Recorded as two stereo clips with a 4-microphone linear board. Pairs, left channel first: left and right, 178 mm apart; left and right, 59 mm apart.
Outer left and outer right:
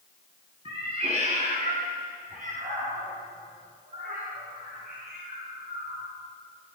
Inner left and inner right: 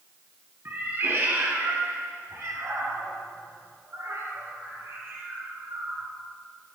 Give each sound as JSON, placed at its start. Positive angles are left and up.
{"t": 0.7, "sound": "a cat meowing", "side_deg": -35, "distance_m": 1.4}